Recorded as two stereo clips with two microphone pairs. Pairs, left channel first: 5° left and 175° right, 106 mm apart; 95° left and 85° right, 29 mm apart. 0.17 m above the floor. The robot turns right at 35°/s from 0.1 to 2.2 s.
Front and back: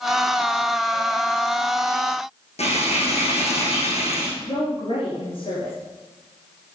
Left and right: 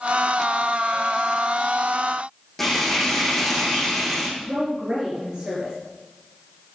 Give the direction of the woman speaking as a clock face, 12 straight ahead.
1 o'clock.